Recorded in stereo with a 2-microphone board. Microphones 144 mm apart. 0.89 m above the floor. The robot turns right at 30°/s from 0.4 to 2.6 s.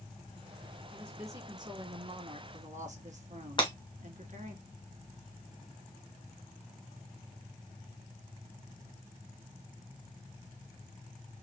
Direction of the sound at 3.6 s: 35° left (ahead or behind).